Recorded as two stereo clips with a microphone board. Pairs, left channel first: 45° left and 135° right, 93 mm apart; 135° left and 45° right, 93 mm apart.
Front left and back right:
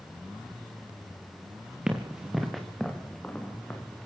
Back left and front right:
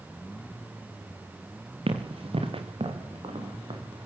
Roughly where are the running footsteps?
Ahead right.